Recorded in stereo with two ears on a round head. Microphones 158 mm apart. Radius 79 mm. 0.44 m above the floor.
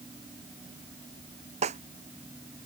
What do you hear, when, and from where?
1.6 s a snare drum: 40° right (ahead or behind)